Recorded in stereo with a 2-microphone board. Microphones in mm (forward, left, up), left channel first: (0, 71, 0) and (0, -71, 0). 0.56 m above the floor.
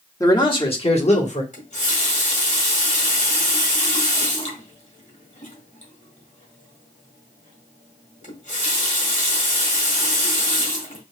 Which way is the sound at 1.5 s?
55° left (ahead or behind).